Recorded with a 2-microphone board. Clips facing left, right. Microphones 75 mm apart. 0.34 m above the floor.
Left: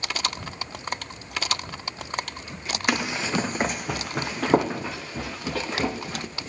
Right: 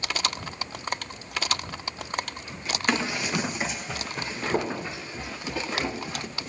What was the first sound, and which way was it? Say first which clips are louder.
Running footsteps: left 1 dB; 10° left (ahead or behind).